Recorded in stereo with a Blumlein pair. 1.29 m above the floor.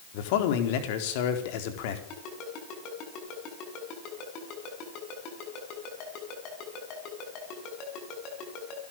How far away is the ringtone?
About 6.5 m.